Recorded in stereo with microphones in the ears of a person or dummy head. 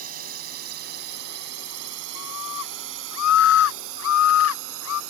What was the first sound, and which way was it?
A drone, 45° right (ahead or behind).